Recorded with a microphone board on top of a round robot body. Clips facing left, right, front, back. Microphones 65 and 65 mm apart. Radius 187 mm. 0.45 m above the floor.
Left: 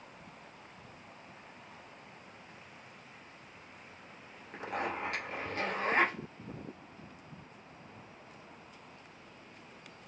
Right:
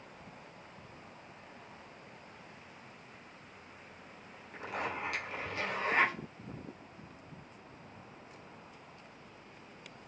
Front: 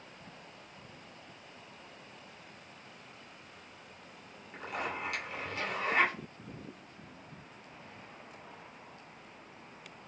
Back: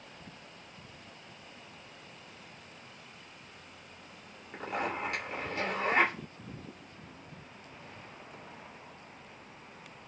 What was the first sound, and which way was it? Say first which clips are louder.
A zipper: left 2 dB, back 3 dB; 130° left.